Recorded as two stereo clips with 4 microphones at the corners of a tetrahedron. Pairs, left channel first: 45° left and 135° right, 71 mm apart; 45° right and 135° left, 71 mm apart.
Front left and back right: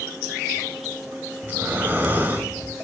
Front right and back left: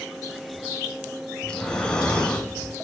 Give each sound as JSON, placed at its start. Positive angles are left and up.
{"t": 1.4, "sound": "breathing", "azimuth_deg": -105, "distance_m": 1.6}